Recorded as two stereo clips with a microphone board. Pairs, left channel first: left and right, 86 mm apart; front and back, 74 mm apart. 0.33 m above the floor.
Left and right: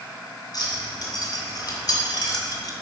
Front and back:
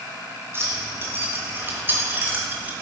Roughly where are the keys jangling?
Behind left.